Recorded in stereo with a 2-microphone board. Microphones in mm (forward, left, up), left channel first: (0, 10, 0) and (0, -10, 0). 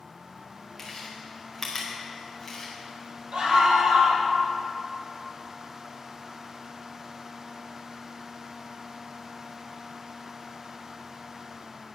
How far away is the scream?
About 3 m.